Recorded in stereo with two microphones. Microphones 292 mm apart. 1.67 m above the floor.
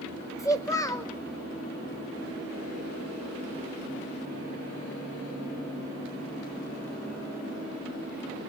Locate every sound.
0.4 s a child speaking: 10° left (ahead or behind), 0.8 m